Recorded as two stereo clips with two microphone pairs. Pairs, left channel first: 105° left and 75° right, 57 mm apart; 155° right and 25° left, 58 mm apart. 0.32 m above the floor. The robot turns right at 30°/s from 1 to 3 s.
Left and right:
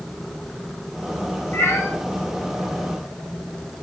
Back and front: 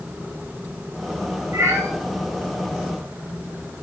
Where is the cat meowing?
60° left, 4 m; by 1.9 s 70° left, 4 m.